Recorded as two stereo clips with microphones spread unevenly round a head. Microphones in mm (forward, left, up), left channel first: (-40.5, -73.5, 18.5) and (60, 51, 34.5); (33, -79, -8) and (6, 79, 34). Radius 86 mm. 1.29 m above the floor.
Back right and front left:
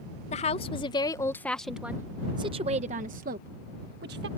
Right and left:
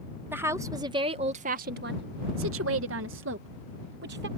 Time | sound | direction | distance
0.3 | a woman speaking | straight behind | ?